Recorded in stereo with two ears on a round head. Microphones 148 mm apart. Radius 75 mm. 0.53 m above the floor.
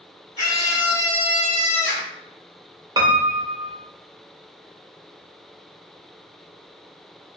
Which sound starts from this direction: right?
A piano, at 3.0 s.